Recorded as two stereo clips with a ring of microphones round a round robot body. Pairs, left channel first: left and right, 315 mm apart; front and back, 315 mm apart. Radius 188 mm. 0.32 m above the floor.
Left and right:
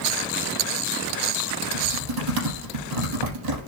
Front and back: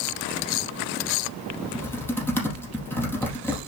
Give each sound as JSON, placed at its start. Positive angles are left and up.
{"t": 1.7, "sound": "typing on a keyboard", "azimuth_deg": -85, "distance_m": 3.5}